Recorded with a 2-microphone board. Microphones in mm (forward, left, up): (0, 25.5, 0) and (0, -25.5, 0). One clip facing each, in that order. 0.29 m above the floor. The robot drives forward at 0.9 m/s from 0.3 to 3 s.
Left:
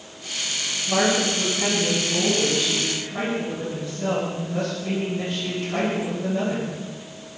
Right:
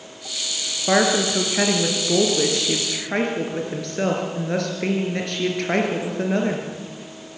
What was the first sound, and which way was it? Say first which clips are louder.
A woman speaking: right 3 dB; 70° right (ahead or behind).